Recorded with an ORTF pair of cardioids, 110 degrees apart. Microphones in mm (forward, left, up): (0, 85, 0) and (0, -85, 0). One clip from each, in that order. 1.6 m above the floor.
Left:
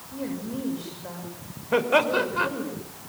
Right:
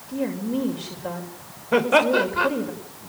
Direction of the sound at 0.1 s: 45° right.